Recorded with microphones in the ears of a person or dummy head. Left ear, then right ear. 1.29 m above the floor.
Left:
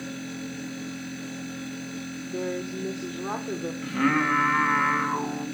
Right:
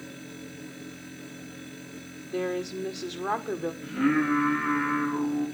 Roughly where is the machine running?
Left.